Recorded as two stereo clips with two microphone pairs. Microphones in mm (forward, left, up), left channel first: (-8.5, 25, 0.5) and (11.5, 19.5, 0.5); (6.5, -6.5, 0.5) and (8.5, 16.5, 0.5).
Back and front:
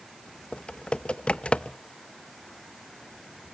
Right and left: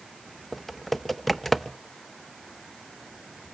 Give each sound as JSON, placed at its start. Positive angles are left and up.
{"t": 0.5, "sound": "typing on a keyboard", "azimuth_deg": -175, "distance_m": 0.6}